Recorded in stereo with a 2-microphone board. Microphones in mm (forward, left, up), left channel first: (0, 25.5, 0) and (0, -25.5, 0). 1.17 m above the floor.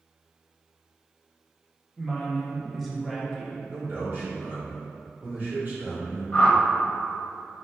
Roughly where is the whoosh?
Left.